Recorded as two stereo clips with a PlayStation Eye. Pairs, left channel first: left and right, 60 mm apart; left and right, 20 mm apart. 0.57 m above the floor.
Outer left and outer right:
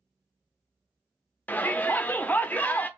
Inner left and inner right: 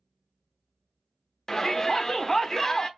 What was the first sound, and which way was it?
A shout, 25° left (ahead or behind).